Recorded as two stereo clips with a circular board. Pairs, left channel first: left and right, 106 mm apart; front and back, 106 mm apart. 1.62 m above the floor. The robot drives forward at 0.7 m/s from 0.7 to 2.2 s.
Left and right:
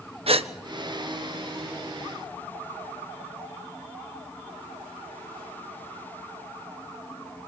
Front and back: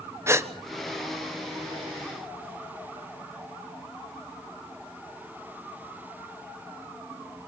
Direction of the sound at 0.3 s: 115° right.